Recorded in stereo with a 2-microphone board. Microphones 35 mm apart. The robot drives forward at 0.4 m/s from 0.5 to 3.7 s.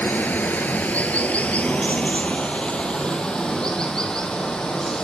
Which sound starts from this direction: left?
Running water, at 0.0 s.